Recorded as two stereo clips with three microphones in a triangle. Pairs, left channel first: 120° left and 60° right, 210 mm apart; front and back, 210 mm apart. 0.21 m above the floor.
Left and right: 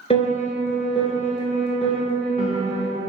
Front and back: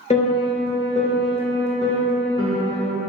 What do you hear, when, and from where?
0.1 s a piano: 55° left, 0.7 m